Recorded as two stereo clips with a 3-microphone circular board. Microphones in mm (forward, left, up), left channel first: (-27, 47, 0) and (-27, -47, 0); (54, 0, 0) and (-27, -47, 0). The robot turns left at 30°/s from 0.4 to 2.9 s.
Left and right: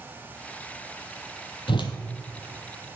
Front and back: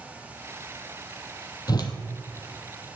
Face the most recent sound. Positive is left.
turn(degrees=35)